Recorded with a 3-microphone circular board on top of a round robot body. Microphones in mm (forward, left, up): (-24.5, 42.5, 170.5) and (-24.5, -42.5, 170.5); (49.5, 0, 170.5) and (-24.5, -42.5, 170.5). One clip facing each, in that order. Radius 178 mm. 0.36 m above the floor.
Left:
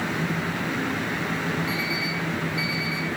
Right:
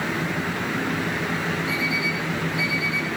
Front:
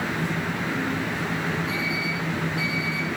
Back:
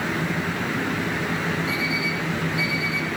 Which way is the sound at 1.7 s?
70° left.